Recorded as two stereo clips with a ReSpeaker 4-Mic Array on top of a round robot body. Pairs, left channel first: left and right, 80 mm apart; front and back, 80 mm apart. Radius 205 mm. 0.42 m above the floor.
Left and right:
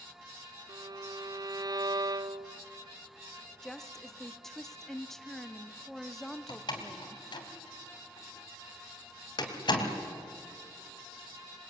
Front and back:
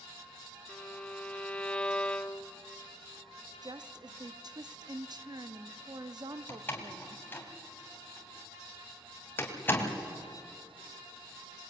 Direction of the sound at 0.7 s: 75° right.